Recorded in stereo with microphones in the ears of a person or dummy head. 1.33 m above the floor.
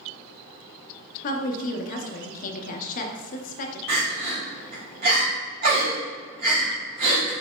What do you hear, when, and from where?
1.2 s a woman speaking: 45° left (ahead or behind), 0.7 m
3.9 s crying: 55° right (ahead or behind), 1.5 m